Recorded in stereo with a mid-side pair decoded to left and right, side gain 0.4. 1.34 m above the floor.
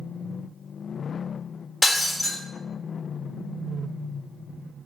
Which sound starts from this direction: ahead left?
Breaking glass, at 1.8 s.